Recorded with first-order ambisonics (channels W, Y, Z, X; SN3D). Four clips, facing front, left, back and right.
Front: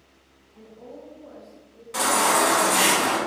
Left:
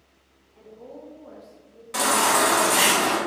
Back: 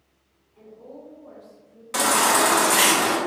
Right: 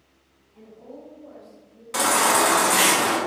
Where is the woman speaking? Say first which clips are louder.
Even, even; 5° right, 0.9 m; by 1.8 s 105° left, 1.3 m.